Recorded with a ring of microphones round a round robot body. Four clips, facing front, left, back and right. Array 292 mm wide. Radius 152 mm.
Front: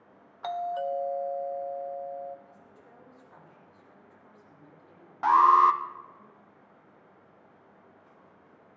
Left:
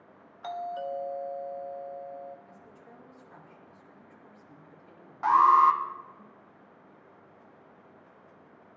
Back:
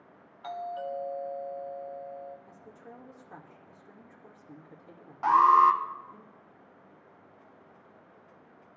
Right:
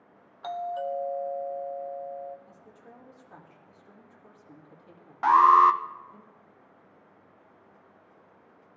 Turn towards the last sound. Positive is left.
turn(degrees=-65)